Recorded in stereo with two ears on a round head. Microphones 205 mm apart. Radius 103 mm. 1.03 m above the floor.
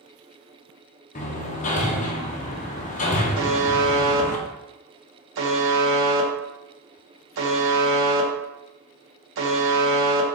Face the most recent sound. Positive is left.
turn(degrees=-60)  # may be behind; listen again after turning